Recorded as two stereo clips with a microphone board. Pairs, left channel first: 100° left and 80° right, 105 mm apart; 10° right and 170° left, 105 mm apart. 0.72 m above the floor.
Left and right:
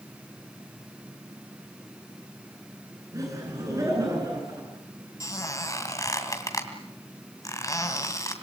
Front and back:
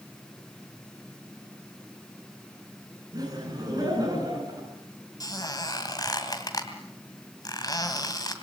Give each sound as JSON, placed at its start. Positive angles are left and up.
{"t": 3.1, "sound": "laughter", "azimuth_deg": -135, "distance_m": 9.5}
{"t": 5.2, "sound": "a squeak", "azimuth_deg": 40, "distance_m": 2.5}